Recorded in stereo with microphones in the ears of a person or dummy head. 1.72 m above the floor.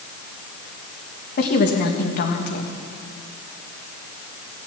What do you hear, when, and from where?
1.4 s a woman speaking: 55° left (ahead or behind), 1.6 m